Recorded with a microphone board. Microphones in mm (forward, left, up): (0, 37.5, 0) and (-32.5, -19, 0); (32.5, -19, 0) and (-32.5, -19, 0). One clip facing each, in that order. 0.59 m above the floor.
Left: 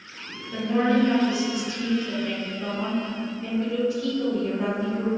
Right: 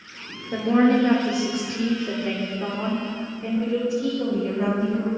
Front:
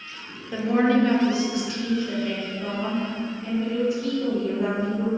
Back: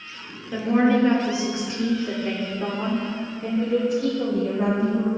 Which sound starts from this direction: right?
A woman speaking, at 0.5 s.